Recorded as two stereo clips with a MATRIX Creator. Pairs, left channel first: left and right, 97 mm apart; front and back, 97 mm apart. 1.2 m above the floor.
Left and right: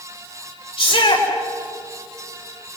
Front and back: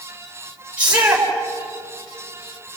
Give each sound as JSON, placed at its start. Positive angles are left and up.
{"t": 0.8, "sound": "a shout", "azimuth_deg": 105, "distance_m": 4.5}